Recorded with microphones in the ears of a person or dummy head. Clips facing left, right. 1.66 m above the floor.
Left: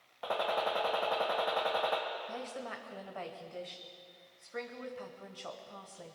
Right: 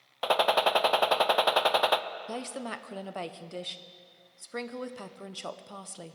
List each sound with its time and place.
0.2 s a gunshot: 85° right, 0.6 m
2.3 s a woman speaking: 55° right (ahead or behind), 0.8 m